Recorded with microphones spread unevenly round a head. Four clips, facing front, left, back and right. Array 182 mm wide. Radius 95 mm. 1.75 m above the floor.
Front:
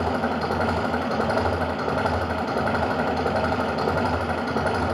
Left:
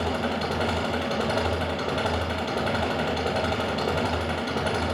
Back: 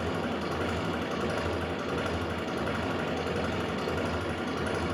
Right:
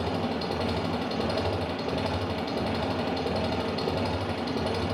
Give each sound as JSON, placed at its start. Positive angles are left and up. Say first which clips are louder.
{"t": 0.0, "sound": "an engine running", "louder": "left 2 dB, front 7 dB", "azimuth_deg": 15, "distance_m": 5.0}